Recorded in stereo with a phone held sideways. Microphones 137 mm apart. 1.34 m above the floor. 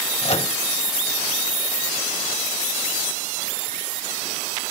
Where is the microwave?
50° left (ahead or behind), 1.1 m.